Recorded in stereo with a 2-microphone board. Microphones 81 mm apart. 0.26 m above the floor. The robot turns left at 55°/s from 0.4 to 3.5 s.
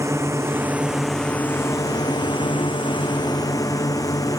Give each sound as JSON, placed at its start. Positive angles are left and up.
{"t": 0.0, "sound": "a drone", "azimuth_deg": -145}